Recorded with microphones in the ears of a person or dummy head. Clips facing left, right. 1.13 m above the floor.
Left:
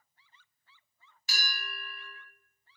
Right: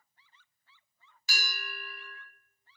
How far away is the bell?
About 1.2 m.